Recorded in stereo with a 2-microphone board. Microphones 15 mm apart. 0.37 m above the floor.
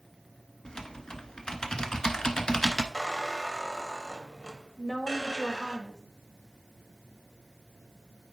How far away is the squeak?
About 1.1 m.